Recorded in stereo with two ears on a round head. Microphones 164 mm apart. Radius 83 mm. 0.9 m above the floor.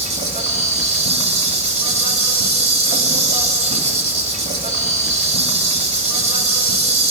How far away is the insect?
About 3 m.